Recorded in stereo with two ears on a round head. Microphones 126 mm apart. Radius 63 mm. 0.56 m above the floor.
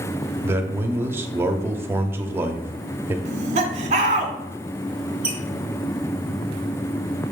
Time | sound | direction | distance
0.4 | a man speaking | 15° right (ahead or behind) | 0.7 m
3.2 | laughter | 50° right (ahead or behind) | 1.4 m
5.2 | a squeak | 10° right (ahead or behind) | 1.9 m